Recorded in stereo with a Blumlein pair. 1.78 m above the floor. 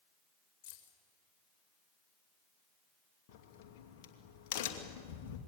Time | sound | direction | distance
0.6 | keys jangling | 45° left | 4 m
3.3 | a crack | 45° left | 2.5 m